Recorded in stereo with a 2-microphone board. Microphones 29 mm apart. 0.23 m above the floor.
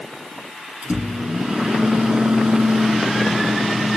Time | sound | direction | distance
0.8 | a microwave | 40° right (ahead or behind) | 3 m